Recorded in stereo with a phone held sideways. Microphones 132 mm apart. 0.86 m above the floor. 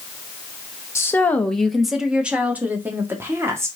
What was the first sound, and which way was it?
A woman speaking, 20° left (ahead or behind).